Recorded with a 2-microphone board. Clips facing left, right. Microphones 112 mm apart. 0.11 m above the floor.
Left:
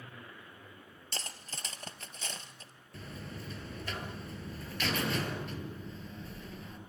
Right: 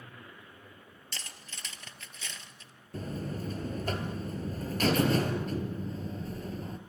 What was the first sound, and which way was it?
Cutlery clinking, 40° left (ahead or behind).